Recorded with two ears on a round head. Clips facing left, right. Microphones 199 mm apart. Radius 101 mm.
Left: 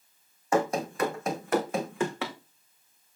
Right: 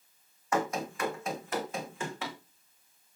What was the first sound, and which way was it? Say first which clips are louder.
Running footsteps: left 5 dB; 25° left (ahead or behind).